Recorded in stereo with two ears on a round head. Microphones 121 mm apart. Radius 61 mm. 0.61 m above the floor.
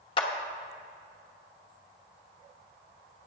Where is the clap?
40° left (ahead or behind), 1.0 m.